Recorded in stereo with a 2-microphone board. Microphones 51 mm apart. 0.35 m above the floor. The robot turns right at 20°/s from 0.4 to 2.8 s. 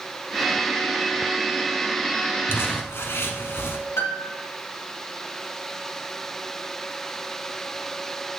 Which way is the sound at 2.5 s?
50° left (ahead or behind).